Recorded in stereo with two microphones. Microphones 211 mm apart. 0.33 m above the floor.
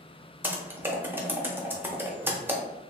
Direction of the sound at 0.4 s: 10° right (ahead or behind).